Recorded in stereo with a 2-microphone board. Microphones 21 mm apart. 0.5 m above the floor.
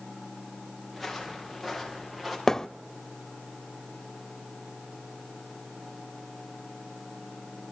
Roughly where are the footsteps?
Centre.